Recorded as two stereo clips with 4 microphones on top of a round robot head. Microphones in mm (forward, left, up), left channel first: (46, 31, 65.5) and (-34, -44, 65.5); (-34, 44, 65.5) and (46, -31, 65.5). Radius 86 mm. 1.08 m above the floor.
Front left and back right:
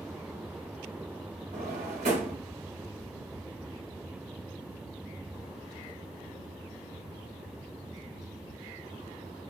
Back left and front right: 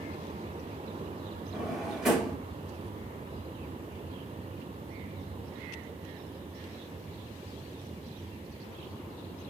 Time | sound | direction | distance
1.5 | a drawer | 125° right | 1.7 m